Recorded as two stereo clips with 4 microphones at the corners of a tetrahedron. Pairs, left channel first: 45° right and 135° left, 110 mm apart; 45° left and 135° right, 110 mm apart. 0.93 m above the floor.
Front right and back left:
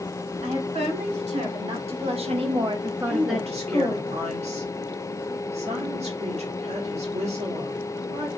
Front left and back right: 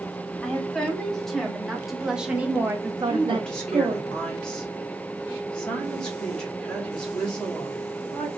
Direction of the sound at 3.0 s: 130° left.